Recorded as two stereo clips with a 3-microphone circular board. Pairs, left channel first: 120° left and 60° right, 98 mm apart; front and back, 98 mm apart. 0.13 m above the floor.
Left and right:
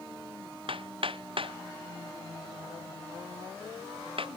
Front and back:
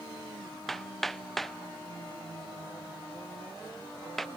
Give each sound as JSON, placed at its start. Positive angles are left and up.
{"t": 0.7, "sound": "hammering", "azimuth_deg": -90}